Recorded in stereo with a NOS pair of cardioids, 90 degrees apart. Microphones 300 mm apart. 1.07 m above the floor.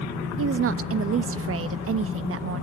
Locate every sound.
0.4 s a woman speaking: 50° right, 1.1 m